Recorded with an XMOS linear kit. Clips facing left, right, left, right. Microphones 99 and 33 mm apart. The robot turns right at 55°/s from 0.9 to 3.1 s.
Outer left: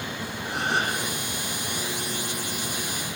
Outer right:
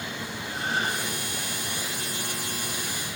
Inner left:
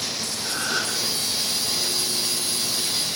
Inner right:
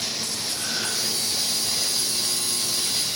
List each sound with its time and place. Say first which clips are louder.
0.4 s a gasp: outer left 3 dB, inner left 5 dB; 75° left (ahead or behind), 8 m